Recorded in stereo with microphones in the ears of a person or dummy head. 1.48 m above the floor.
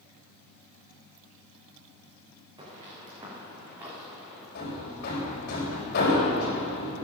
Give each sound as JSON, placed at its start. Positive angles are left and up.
{"t": 2.6, "sound": "footsteps", "side_deg": -25, "distance_m": 7.0}
{"t": 4.5, "sound": "hammering", "side_deg": 55, "distance_m": 6.5}